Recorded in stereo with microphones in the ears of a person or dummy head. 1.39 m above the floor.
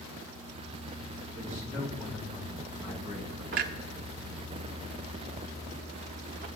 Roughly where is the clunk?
Right.